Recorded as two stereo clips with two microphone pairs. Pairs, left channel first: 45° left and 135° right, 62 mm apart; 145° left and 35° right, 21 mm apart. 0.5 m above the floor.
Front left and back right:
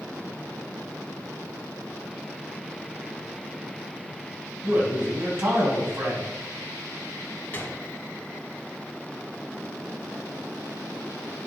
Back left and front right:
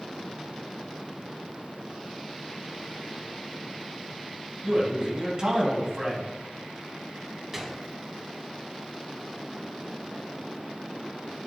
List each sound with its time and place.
4.6 s a man speaking: 95° right, 3 m
7.5 s a gunshot: 40° left, 1.4 m